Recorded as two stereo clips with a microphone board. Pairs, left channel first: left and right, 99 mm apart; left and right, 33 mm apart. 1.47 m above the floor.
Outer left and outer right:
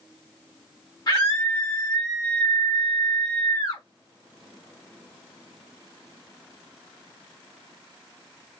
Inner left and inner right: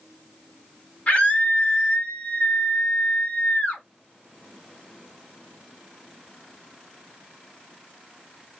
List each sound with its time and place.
1.1 s a scream: 50° left (ahead or behind), 1.4 m